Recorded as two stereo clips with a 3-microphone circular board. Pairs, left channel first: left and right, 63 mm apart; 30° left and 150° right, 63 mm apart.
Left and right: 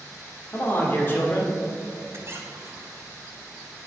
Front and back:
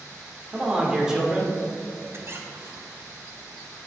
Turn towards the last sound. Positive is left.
turn(degrees=-120)